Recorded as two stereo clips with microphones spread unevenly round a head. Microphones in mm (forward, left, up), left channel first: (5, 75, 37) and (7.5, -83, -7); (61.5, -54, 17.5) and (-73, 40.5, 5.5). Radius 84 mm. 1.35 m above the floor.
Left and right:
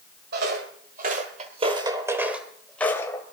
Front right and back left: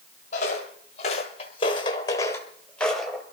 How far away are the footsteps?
About 2 m.